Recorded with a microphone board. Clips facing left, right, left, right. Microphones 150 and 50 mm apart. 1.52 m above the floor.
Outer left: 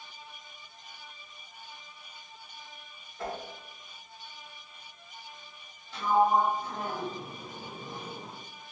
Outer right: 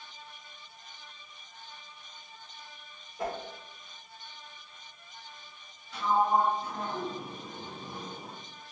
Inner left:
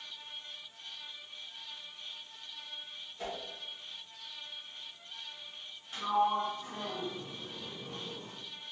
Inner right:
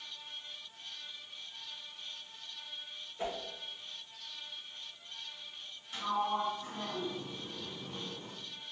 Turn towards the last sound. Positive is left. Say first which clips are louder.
# outer left 2 dB, inner left 4 dB
turn(degrees=35)  # may be behind; listen again after turning